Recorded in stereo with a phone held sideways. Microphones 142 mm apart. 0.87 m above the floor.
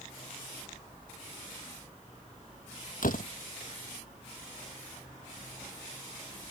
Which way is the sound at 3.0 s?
75° left (ahead or behind).